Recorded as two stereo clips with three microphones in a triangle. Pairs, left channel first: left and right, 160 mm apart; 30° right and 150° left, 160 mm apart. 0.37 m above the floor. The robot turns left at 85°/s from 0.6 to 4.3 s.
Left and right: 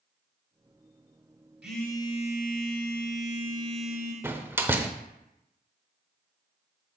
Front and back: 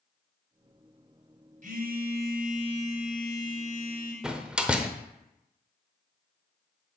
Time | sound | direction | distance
1.6 | a phone buzzing | 175° right | 2.0 m
4.2 | a door slam | 130° right | 0.7 m